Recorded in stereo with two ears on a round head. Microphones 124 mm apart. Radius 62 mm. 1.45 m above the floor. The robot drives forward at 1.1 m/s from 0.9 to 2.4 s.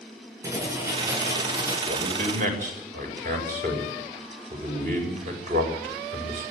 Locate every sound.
0.4 s writing: 25° right (ahead or behind), 8 m; by 1.8 s 20° right (ahead or behind), 9 m
1.9 s a man speaking: 65° right (ahead or behind), 7 m; by 6.4 s 60° right (ahead or behind), 7 m